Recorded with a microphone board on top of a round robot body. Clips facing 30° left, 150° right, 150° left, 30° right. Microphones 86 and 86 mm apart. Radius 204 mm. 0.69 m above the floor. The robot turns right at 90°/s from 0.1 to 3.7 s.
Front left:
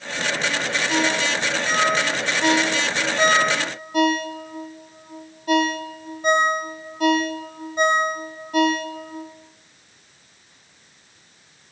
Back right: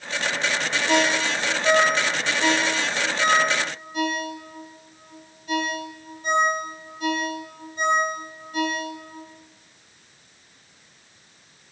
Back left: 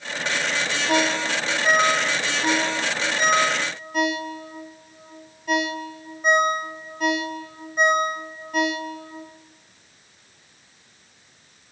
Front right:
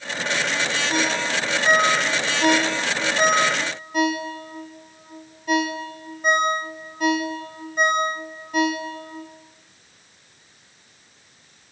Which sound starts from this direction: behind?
A ringtone, at 0.9 s.